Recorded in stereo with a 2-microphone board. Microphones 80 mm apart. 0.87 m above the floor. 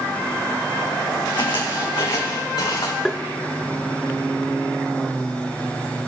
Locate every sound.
1.3 s footsteps: 65° left (ahead or behind), 3 m; by 3.0 s 70° left (ahead or behind), 4.5 m
3.0 s tapping: 10° left (ahead or behind), 0.6 m